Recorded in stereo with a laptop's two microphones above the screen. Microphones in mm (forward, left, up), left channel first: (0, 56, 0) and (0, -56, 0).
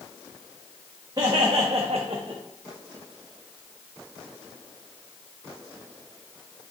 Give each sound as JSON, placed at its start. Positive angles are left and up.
{"t": 1.2, "sound": "laughter", "side_deg": -35, "distance_m": 1.0}